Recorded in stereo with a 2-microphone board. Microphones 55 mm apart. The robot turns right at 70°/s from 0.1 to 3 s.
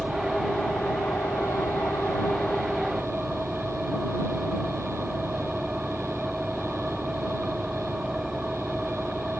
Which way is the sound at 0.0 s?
10° right.